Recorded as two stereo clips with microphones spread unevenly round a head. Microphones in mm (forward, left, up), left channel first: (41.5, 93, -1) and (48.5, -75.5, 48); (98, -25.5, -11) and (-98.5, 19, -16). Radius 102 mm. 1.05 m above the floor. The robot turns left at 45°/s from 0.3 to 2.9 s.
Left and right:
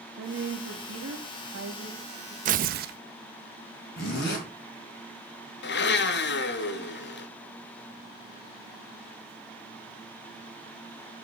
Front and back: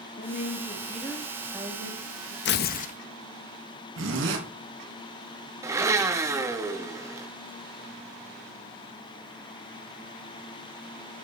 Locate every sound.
0.2 s a woman speaking: 65° right, 1.6 m; by 2.4 s 160° right, 1.6 m
2.5 s tearing paper: 50° right, 0.6 m; by 3.0 s 70° right, 0.6 m
4.0 s a zipper: 135° left, 4 m
5.6 s a blender: 90° left, 1.4 m